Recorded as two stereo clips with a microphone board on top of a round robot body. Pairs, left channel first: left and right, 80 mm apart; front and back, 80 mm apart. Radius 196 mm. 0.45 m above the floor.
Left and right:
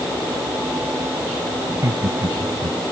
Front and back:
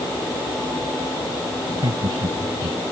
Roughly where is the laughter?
Behind right.